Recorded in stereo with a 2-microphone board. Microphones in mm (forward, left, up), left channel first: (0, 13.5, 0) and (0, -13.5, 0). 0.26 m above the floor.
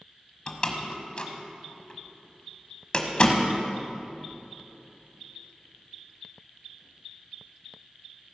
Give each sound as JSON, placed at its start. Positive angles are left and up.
{"t": 0.5, "sound": "a door slam", "side_deg": 40, "distance_m": 1.1}